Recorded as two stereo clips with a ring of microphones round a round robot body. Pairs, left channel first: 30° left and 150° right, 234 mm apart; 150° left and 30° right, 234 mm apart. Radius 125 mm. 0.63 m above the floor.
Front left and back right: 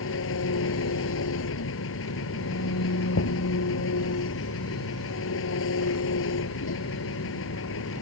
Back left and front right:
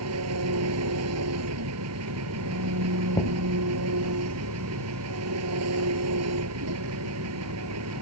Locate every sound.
0.0 s an engine running: 5° right
3.1 s knocking: 75° left